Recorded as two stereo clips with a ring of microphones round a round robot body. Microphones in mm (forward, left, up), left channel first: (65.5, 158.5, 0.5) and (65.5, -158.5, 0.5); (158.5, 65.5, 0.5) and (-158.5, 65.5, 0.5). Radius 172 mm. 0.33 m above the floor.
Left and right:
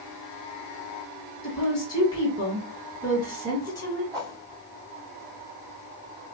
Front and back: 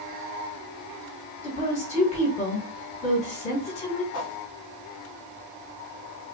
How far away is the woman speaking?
About 1.4 m.